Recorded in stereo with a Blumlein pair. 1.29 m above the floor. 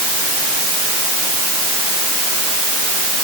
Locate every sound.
Only background noise.